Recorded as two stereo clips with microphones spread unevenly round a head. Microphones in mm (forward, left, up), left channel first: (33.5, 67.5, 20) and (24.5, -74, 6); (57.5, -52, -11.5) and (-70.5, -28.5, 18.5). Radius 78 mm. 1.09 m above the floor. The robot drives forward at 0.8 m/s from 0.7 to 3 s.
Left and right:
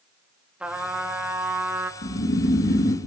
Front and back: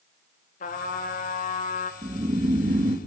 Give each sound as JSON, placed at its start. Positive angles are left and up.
{"t": 0.6, "sound": "a trumpet", "azimuth_deg": -10, "distance_m": 2.5}
{"t": 2.0, "sound": "snoring", "azimuth_deg": 110, "distance_m": 1.7}